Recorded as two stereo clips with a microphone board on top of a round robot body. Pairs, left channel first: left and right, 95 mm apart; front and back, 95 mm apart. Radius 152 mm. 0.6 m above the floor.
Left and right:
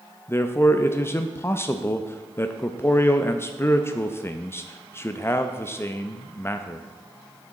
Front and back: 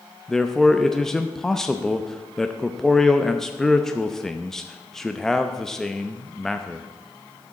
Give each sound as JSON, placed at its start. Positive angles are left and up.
{"t": 0.3, "sound": "a man speaking", "azimuth_deg": 80, "distance_m": 0.8}